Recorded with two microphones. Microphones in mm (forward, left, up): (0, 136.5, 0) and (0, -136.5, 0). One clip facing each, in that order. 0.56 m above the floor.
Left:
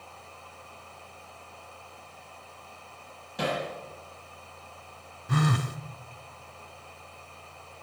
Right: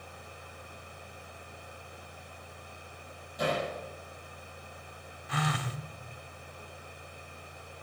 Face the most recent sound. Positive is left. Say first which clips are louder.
# left 7 dB
turn(degrees=50)  # may be behind; listen again after turning